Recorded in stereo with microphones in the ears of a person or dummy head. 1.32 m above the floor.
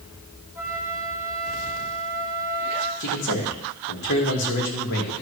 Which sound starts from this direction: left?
A man speaking, at 3.0 s.